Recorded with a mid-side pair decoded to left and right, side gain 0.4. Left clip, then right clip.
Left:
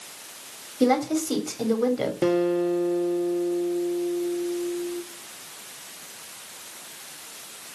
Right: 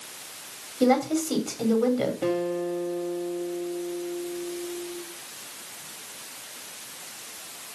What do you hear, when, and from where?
0.8 s a woman speaking: 25° left, 3.5 m
2.2 s a guitar: 65° left, 1.3 m